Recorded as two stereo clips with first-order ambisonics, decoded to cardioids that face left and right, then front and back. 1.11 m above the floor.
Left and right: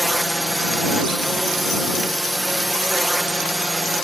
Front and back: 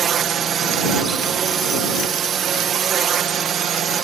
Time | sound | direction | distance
0.0 | a drone | 175° right | ?